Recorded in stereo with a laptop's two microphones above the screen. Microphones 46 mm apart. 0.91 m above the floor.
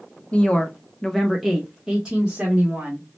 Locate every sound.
0.3 s a woman speaking: 30° left (ahead or behind), 0.7 m; by 3.1 s 25° right (ahead or behind), 1.3 m